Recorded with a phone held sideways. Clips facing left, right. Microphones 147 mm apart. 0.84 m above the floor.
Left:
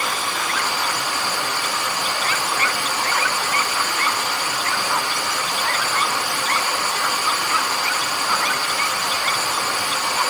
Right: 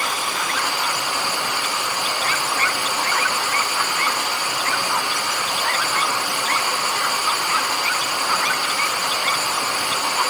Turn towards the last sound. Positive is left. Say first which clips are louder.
# even
turn(degrees=-15)  # may be behind; listen again after turning